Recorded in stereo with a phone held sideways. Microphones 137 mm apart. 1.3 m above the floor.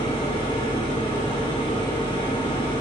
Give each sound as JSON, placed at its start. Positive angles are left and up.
{"t": 0.0, "sound": "a machine running", "side_deg": 40, "distance_m": 1.8}